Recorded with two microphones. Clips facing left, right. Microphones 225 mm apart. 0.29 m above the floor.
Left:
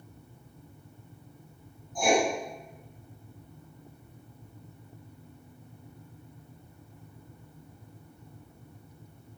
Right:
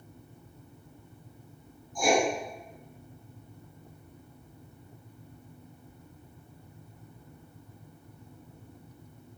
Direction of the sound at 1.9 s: 60° left (ahead or behind).